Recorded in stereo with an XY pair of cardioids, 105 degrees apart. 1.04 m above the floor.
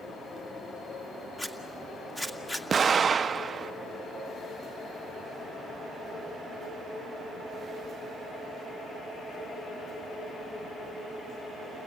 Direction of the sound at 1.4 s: 20° left.